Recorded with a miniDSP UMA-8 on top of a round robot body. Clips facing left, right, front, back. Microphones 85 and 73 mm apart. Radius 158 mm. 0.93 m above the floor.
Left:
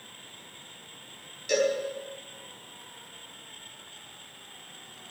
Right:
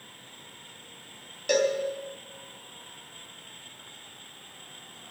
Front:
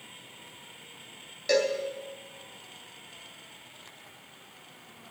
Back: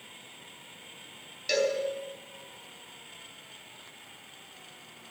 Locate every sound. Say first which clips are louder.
1.5 s a cowbell: right 1 dB, front 2 dB; 55° right, 3.5 m